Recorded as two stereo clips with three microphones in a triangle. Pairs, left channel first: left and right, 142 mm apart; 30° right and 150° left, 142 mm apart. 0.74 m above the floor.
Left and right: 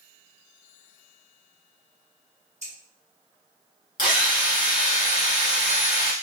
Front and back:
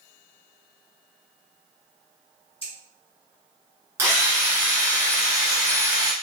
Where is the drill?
80° left, 1.3 m.